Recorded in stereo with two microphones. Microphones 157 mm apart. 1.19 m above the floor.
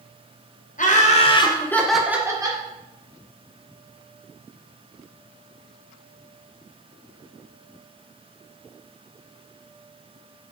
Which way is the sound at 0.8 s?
55° left (ahead or behind).